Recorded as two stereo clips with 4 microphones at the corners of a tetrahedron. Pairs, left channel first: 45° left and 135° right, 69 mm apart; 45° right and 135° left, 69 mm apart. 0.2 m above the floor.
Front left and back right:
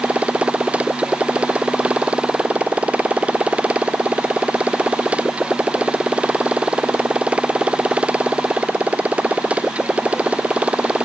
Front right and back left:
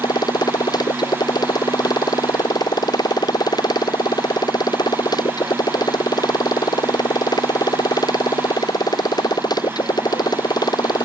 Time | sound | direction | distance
0.0 | a motorcycle | 60° right | ?